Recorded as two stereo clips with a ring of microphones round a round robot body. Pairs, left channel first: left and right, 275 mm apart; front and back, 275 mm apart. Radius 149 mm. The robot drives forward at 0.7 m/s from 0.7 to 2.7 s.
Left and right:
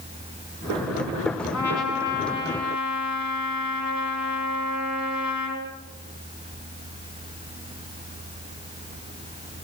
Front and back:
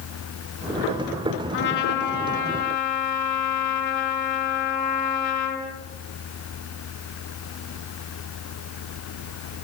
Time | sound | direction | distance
1.5 | a trumpet | 55° left | 4.5 m